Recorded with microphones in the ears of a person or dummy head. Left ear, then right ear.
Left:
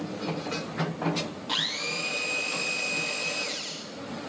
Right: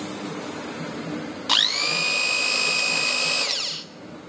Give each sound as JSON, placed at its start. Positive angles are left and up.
{"t": 1.5, "sound": "a blender", "side_deg": -50, "distance_m": 1.1}